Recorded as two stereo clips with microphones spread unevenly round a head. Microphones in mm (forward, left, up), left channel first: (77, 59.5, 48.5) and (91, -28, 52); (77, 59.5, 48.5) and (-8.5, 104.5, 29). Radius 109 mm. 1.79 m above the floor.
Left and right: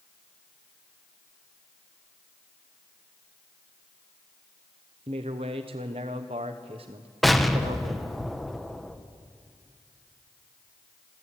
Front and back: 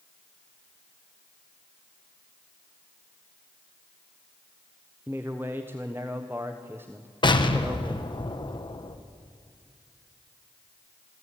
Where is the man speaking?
125° right, 1.2 m.